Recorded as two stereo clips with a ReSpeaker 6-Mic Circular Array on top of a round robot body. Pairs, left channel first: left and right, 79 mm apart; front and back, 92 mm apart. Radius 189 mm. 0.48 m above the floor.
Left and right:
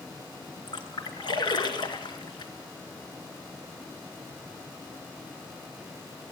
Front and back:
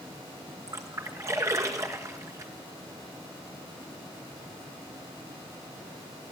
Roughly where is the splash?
Behind left.